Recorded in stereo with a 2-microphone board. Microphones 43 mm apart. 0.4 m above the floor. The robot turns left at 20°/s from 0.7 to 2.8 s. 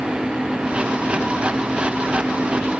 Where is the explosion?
I don't hear an explosion.